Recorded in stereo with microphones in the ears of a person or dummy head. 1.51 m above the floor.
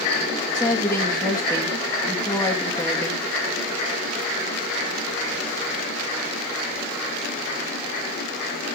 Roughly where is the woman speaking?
Centre.